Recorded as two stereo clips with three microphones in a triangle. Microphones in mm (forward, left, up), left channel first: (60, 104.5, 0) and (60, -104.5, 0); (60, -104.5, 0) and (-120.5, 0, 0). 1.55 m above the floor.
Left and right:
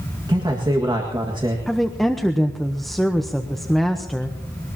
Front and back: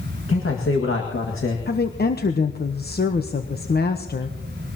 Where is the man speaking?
20° right, 1.9 m.